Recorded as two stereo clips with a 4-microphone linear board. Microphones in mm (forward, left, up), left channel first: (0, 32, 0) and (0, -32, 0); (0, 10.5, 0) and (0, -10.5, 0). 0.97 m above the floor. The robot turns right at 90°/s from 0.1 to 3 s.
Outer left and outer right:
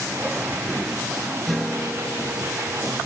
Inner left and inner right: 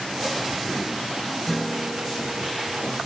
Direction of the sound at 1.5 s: Straight ahead.